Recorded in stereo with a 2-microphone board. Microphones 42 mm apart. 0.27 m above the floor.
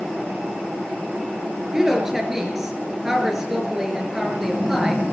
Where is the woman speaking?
15° right (ahead or behind), 4 m.